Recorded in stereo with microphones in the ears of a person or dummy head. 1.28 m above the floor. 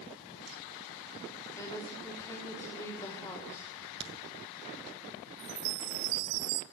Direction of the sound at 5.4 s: 75° right (ahead or behind).